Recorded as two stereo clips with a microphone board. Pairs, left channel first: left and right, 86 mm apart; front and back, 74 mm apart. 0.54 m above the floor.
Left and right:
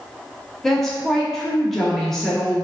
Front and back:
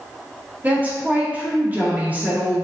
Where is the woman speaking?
170° left, 0.6 m.